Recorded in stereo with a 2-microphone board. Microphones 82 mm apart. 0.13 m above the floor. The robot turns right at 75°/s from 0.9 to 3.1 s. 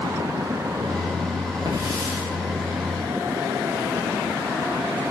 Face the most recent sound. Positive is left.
turn(degrees=55)